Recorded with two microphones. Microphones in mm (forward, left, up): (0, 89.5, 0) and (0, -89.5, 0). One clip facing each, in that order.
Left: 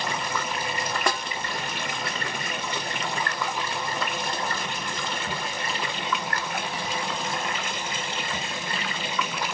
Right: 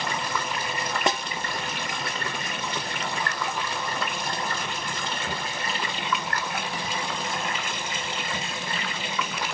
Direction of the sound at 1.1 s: 20° right (ahead or behind).